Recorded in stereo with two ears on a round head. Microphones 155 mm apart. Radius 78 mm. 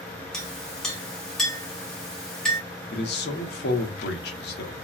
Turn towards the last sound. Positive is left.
turn(degrees=65)  # may be behind; listen again after turning